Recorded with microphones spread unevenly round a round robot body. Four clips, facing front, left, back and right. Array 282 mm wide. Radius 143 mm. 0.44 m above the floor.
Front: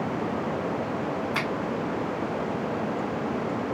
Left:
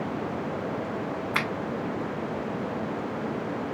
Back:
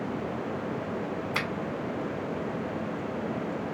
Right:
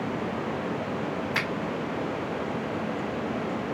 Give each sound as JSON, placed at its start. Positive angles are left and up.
{"t": 1.3, "sound": "a finger snap", "azimuth_deg": 145, "distance_m": 1.2}